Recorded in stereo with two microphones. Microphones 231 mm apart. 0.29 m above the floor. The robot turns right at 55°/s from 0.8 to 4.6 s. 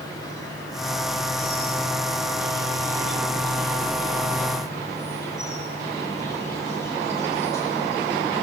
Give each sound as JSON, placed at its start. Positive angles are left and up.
{"t": 0.0, "sound": "an insect", "azimuth_deg": 165, "distance_m": 9.0}